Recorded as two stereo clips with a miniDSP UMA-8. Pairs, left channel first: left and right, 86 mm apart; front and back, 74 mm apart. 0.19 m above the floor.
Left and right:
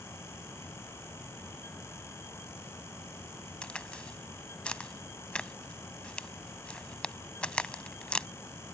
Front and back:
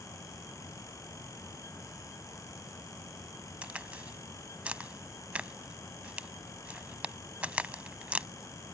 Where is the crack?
145° left.